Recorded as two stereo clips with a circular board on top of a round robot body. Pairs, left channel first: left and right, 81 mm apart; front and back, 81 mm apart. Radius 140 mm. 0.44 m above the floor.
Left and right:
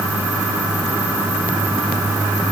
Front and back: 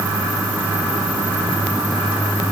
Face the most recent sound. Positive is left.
No sound to turn to.